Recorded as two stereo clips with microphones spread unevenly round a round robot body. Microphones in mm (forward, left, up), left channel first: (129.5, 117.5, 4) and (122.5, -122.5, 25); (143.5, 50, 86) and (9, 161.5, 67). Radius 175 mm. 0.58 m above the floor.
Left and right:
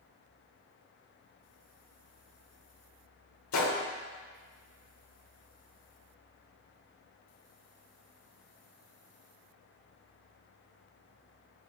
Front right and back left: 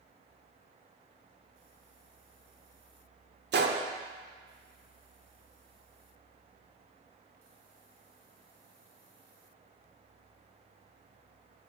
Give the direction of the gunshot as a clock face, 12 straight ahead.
8 o'clock.